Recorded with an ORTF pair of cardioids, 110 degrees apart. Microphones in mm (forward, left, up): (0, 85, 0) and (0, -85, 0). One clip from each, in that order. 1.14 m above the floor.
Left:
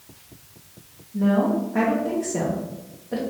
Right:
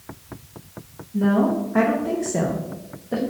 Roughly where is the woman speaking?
Ahead.